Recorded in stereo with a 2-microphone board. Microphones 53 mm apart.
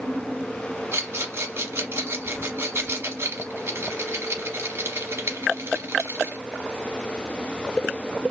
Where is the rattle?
55° right (ahead or behind), 1.0 m.